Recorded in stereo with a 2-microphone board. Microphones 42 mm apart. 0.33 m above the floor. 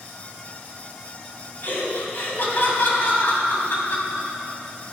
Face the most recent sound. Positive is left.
turn(degrees=60)  # may be behind; listen again after turning